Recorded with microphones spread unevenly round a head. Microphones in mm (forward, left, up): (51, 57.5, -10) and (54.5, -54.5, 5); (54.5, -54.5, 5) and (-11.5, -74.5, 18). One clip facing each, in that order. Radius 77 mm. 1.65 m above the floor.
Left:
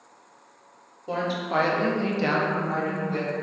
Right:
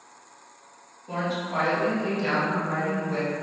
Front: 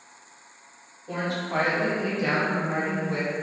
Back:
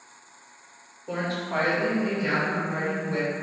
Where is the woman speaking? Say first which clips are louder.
Left 2 dB, even; 130° left, 0.8 m; by 3.3 s 15° left, 1.0 m.